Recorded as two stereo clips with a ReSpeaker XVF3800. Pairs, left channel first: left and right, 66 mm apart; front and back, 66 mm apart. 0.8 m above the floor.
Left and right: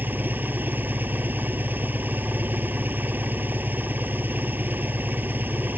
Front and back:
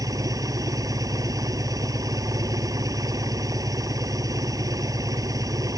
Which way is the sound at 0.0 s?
150° right.